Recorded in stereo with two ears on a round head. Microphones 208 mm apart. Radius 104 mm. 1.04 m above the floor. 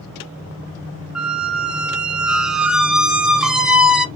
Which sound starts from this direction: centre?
A squeak, at 1.1 s.